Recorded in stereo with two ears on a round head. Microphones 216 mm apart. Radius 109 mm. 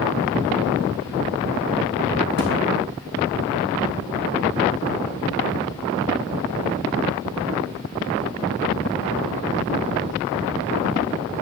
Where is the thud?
45° right (ahead or behind), 2 m.